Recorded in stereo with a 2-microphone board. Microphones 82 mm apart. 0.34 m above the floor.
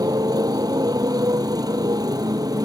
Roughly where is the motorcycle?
Right.